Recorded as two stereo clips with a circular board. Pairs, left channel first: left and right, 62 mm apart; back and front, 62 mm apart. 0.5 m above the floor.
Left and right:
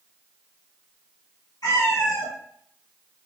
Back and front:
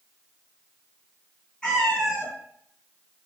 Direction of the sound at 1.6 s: 100° left.